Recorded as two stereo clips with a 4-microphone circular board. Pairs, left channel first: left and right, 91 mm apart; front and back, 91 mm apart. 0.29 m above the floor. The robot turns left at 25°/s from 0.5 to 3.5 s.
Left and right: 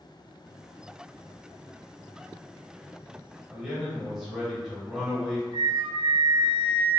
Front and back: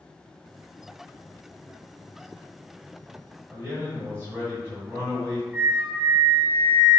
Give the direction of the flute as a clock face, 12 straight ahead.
3 o'clock.